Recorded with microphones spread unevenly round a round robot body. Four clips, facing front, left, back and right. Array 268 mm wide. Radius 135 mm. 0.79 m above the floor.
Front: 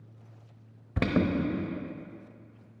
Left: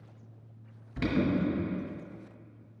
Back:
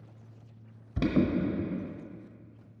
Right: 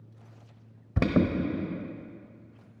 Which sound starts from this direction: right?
An alarm, at 1.0 s.